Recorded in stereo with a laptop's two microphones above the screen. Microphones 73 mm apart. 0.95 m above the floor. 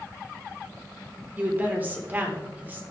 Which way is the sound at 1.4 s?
25° right (ahead or behind).